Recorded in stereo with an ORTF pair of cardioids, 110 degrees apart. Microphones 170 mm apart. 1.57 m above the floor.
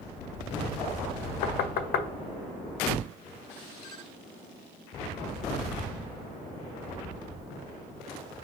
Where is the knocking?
65° left, 0.6 m.